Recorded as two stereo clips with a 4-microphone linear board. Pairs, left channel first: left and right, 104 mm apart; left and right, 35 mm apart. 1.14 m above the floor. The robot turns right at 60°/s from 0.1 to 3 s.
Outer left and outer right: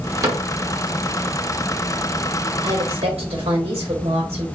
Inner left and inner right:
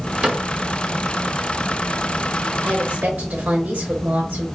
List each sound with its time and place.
0.2 s a cupboard door: 30° right (ahead or behind), 1.6 m; by 0.5 s 20° right (ahead or behind), 1.6 m
2.6 s a woman speaking: 85° right, 3 m; by 4.5 s 65° right (ahead or behind), 3 m